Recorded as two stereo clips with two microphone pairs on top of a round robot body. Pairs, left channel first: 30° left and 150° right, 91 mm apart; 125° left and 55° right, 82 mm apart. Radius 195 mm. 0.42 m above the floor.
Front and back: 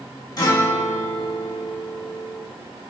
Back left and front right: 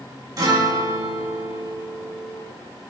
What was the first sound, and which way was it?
A guitar, 15° right.